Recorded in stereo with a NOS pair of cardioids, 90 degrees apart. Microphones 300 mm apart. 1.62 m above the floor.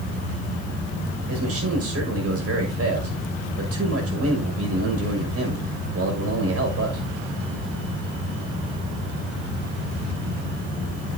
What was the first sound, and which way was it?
A man speaking, 50° right.